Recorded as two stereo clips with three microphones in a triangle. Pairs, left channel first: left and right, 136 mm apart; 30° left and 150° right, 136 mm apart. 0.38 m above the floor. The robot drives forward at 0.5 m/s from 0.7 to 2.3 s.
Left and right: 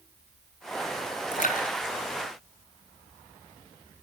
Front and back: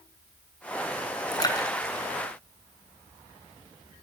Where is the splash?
90° left, 4 m; by 3.2 s 95° left, 4 m.